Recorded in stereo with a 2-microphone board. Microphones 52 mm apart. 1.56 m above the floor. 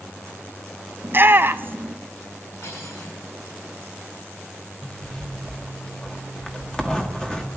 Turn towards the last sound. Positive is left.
turn(degrees=10)  # may be behind; listen again after turning